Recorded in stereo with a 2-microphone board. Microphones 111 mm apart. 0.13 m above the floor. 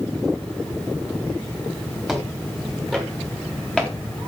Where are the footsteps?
Centre (ahead or behind), 6.5 m; by 4.0 s 5° left (ahead or behind), 6 m.